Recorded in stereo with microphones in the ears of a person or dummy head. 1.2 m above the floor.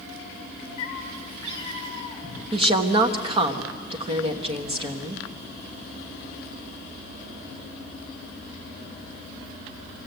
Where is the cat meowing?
40° left (ahead or behind), 3 m; by 2.4 s 20° left (ahead or behind), 4 m.